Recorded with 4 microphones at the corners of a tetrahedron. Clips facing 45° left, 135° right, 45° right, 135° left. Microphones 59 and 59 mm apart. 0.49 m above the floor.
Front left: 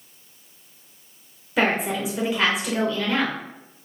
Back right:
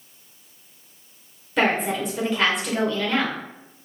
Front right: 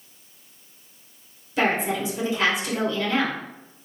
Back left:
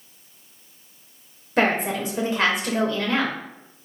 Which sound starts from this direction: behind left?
A woman speaking, at 1.6 s.